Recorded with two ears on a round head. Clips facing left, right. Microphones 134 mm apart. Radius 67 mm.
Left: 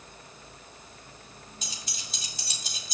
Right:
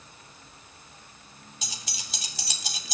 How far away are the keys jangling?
About 3 m.